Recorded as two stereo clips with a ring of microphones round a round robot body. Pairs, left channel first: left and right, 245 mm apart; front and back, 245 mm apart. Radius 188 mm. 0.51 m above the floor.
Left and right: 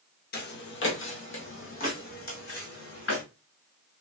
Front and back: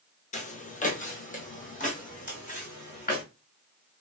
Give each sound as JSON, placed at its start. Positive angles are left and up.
{"t": 0.3, "sound": "footsteps", "azimuth_deg": 55, "distance_m": 0.7}